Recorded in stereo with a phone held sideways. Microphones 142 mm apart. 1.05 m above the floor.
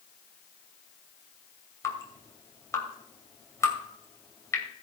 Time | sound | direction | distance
1.8 | dripping | 25° left (ahead or behind) | 2.5 m